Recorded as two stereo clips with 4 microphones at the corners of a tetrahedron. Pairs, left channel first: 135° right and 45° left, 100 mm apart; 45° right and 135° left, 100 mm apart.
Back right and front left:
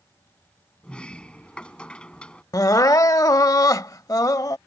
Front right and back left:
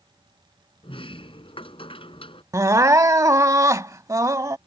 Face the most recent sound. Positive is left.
turn(degrees=180)